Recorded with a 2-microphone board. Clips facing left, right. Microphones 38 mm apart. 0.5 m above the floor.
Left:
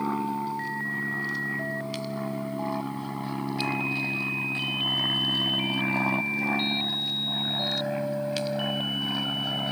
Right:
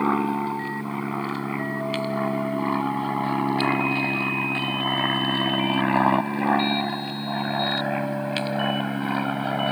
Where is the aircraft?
35° right (ahead or behind).